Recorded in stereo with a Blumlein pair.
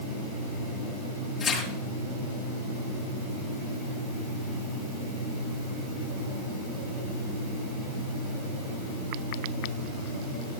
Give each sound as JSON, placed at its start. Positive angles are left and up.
{"t": 1.4, "sound": "tearing paper", "azimuth_deg": 25, "distance_m": 7.0}